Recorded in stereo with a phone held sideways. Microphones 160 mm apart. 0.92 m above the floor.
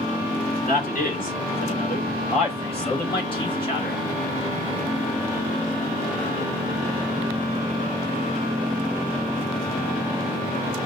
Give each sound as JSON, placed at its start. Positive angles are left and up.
{"t": 0.7, "sound": "a man speaking", "side_deg": 60, "distance_m": 3.0}